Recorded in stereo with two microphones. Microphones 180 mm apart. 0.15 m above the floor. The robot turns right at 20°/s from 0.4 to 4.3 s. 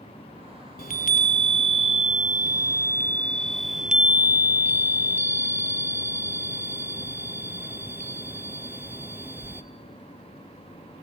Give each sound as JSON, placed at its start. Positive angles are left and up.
{"t": 0.8, "sound": "a chime", "azimuth_deg": 120, "distance_m": 0.5}